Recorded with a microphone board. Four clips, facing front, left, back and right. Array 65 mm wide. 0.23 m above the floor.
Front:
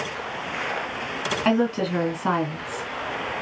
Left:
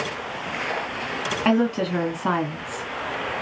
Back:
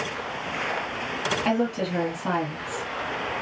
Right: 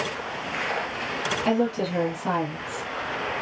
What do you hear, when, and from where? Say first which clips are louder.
1.4 s a woman speaking: left 4 dB, front 5 dB; 60° left, 1.8 m